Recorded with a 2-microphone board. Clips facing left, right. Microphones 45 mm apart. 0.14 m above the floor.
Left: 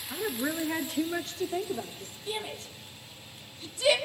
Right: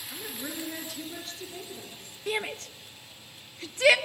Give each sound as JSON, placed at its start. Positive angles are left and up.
{"t": 0.1, "sound": "a woman speaking", "side_deg": 25, "distance_m": 1.4}
{"t": 2.3, "sound": "a shout", "side_deg": -60, "distance_m": 2.5}